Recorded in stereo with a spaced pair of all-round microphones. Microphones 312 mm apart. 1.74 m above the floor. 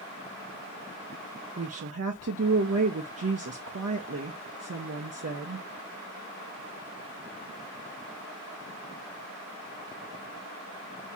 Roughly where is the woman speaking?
Right.